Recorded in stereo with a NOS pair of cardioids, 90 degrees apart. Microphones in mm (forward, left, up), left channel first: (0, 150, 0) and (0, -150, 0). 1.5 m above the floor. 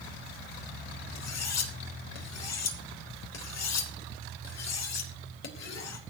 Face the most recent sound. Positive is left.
turn(degrees=60)